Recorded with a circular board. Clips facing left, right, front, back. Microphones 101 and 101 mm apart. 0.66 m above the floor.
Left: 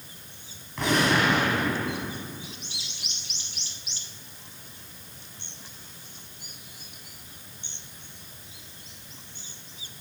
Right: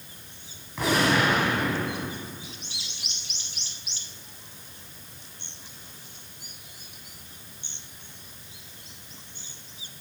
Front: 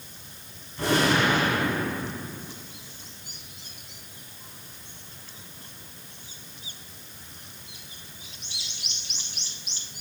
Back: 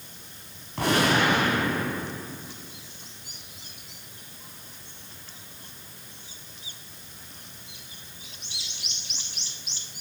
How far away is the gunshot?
About 2.5 m.